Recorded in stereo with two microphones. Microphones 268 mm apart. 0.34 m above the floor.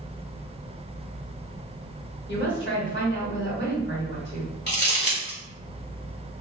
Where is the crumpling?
40° left (ahead or behind), 1.3 m.